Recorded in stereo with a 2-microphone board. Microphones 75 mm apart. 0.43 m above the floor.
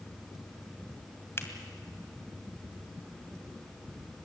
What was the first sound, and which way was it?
A finger snap, 35° left (ahead or behind).